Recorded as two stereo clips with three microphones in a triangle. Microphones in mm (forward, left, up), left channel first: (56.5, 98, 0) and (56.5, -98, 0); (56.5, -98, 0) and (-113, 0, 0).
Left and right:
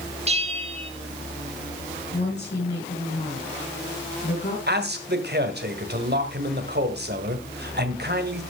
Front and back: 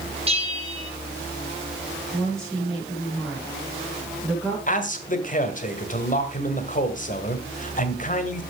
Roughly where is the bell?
Behind right.